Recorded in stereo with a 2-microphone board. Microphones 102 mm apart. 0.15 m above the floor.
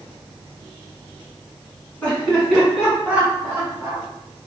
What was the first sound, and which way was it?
Laughter, 10° left (ahead or behind).